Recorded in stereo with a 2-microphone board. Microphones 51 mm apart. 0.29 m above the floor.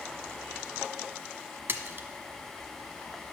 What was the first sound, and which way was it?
A splash, 50° right (ahead or behind).